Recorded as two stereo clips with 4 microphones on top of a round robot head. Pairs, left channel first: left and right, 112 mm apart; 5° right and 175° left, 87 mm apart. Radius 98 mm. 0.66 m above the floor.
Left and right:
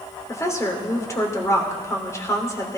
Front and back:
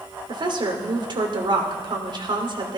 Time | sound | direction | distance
0.3 | a woman speaking | 155° left | 3 m